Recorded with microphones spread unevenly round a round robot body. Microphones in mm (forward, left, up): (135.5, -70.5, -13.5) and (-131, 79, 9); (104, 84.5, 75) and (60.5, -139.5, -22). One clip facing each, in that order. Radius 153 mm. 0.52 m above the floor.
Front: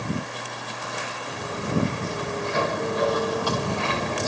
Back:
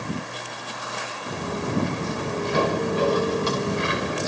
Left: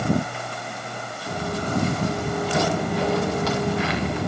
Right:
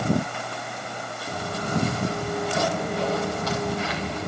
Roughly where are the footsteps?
Left.